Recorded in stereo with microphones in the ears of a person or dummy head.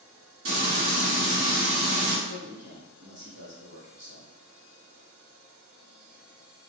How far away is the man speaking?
About 1.8 m.